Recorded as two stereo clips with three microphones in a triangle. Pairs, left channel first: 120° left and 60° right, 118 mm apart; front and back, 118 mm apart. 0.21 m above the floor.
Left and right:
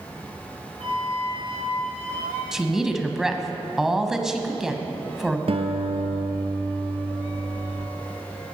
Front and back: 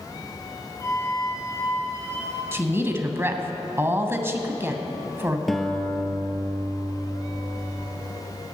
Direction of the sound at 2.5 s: 140° right.